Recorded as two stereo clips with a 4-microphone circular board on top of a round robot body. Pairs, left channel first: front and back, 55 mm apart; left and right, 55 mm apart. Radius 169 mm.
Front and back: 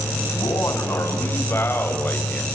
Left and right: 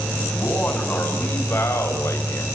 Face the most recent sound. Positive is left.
turn(degrees=65)